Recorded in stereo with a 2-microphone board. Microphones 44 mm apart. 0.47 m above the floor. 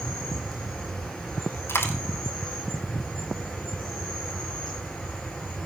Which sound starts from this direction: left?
A dropped coin, at 1.7 s.